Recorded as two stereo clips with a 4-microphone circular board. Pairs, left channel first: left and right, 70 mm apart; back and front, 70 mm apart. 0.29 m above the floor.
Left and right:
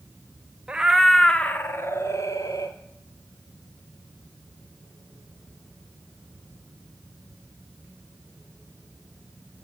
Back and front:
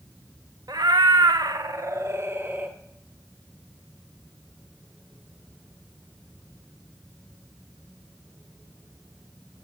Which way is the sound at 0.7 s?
15° right.